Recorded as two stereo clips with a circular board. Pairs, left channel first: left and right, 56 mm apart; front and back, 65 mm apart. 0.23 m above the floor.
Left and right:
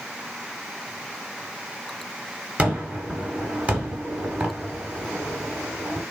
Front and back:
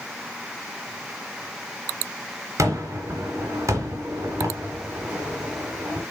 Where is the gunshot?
150° right, 1.7 m.